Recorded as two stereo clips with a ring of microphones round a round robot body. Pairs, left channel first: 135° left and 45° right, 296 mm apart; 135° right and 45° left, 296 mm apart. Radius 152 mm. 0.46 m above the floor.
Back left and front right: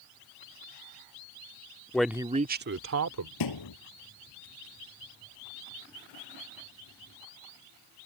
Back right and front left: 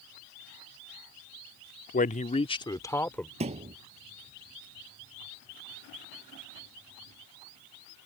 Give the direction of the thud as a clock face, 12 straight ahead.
8 o'clock.